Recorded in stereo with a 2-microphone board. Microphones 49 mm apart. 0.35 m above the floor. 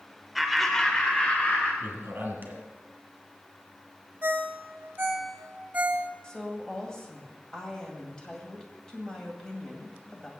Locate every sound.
0.3 s laughter: centre (ahead or behind), 1.1 m; by 1.7 s 35° left (ahead or behind), 1.5 m
1.8 s a man speaking: 45° right (ahead or behind), 2.5 m
4.2 s a ringtone: 40° right (ahead or behind), 1.2 m
6.2 s a woman speaking: 15° left (ahead or behind), 2 m